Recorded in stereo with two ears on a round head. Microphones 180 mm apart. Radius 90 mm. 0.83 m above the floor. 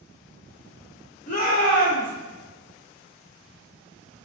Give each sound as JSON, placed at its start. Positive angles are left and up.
{"t": 1.3, "sound": "a shout", "side_deg": 40, "distance_m": 1.6}